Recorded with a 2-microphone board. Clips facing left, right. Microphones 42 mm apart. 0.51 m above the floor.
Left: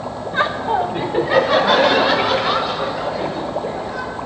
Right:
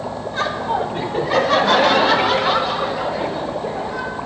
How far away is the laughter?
About 0.9 m.